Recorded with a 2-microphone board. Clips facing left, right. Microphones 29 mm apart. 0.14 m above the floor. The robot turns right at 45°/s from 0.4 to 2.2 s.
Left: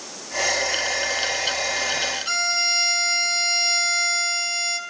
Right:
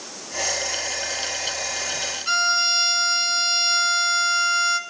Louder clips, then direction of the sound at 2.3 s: Right 6 dB; 10° right (ahead or behind).